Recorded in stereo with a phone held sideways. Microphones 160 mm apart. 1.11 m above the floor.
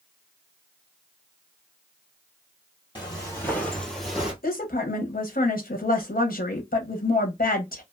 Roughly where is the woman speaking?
Left.